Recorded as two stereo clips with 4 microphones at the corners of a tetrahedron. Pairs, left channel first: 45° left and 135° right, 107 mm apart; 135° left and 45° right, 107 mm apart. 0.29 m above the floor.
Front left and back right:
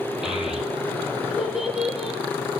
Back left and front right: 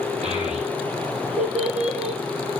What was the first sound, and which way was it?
A child speaking, 50° right.